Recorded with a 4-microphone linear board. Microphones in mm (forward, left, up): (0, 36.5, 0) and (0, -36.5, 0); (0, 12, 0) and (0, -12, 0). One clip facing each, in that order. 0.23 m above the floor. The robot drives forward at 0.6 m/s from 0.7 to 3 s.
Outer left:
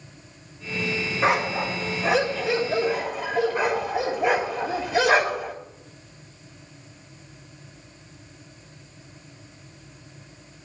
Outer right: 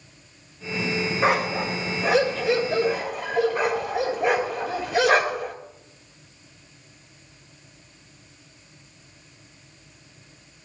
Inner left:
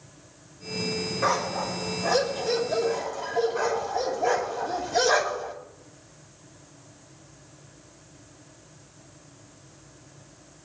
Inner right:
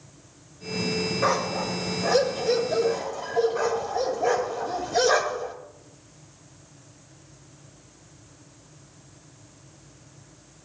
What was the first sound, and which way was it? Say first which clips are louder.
A dog barking: outer left 1 dB, even; centre (ahead or behind).